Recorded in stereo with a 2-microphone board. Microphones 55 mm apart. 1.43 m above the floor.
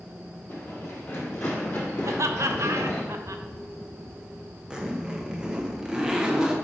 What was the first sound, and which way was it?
Running footsteps, 40° left (ahead or behind).